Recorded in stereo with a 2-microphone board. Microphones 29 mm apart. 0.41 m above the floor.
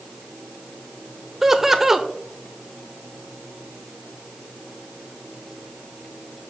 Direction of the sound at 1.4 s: 15° right (ahead or behind).